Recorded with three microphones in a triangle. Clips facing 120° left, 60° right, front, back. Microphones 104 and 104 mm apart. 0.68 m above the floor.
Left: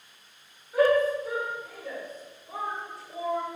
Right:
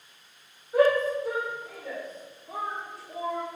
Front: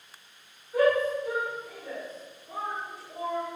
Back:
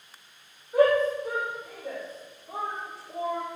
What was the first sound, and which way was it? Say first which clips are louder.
A shout: even, back 2 dB; 120° right.